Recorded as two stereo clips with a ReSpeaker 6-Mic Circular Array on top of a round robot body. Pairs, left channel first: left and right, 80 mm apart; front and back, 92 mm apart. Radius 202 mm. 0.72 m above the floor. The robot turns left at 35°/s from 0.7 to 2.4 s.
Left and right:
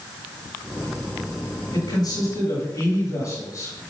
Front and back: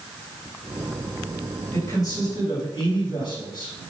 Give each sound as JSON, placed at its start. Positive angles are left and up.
{"t": 1.7, "sound": "a man speaking", "azimuth_deg": 60, "distance_m": 7.0}